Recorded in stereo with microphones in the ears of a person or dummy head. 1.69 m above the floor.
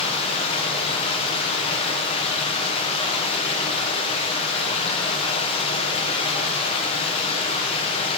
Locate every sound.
0.0 s running water: 30° left (ahead or behind), 1.1 m